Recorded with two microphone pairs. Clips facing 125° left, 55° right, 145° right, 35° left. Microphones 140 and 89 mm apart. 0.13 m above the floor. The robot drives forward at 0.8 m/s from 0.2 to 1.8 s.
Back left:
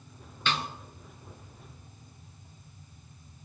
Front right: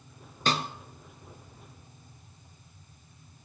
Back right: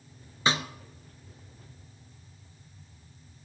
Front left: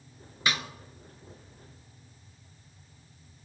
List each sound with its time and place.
0.5 s a snare drum: 90° right, 1.1 m; by 0.7 s 100° right, 1.1 m